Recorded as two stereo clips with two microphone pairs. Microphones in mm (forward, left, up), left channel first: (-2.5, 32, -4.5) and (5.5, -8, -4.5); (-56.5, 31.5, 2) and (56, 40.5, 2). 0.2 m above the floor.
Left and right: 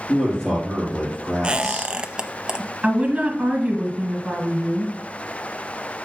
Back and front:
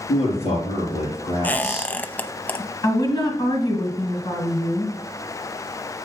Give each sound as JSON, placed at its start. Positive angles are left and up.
{"t": 0.1, "sound": "a man speaking", "azimuth_deg": 175, "distance_m": 5.5}
{"t": 1.4, "sound": "a squeak", "azimuth_deg": -115, "distance_m": 0.6}
{"t": 2.8, "sound": "a woman speaking", "azimuth_deg": -135, "distance_m": 2.5}